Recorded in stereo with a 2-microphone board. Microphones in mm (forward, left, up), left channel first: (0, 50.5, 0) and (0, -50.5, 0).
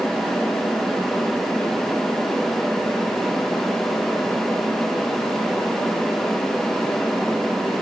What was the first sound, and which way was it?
Only background noise.